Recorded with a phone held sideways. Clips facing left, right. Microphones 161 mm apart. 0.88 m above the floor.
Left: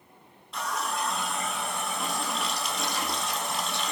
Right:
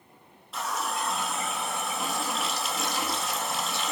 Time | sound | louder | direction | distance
0.5 | a running tap | even | centre (ahead or behind) | 0.7 m